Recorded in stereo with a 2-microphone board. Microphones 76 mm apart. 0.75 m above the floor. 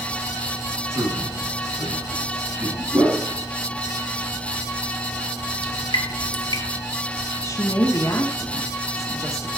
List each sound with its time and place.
0.9 s a man speaking: 35° right (ahead or behind), 6 m
2.9 s a whoosh: 45° right (ahead or behind), 6 m
5.6 s dripping: 70° left (ahead or behind), 1.4 m
7.4 s a woman speaking: 45° left (ahead or behind), 1.4 m